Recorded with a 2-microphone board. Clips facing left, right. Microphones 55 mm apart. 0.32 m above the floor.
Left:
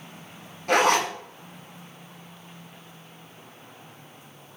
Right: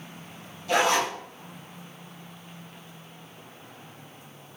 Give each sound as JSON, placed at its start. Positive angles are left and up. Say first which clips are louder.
{"t": 0.7, "sound": "a zipper", "louder": "left 2 dB", "side_deg": 55, "distance_m": 1.2}